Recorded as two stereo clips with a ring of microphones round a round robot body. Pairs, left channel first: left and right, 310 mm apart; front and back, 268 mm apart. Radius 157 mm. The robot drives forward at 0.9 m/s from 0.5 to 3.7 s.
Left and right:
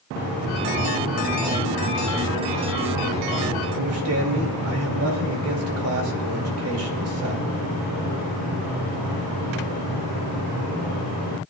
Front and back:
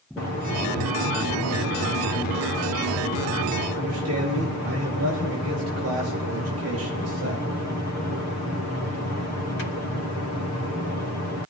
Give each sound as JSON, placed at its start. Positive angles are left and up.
{"t": 3.7, "sound": "a man speaking", "azimuth_deg": -135, "distance_m": 2.5}